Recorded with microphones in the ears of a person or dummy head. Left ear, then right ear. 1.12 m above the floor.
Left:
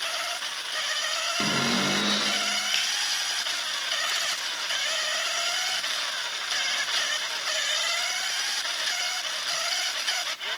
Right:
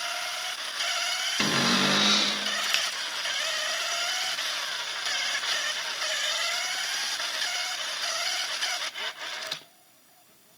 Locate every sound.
1.4 s a cupboard door: 30° right (ahead or behind), 1.0 m
2.7 s a finger snap: 30° right (ahead or behind), 1.1 m